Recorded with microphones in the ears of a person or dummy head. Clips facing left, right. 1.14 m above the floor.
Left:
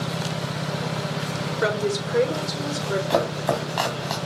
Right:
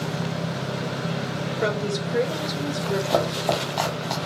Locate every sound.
1.6 s a woman speaking: centre (ahead or behind), 1.2 m
3.1 s chopping: 10° left (ahead or behind), 1.2 m